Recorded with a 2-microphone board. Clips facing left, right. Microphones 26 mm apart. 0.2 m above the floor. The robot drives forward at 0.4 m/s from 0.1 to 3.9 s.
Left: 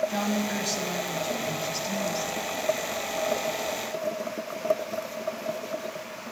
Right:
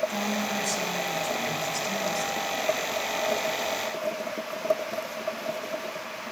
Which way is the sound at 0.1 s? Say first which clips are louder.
Left 1 dB; 25° left (ahead or behind).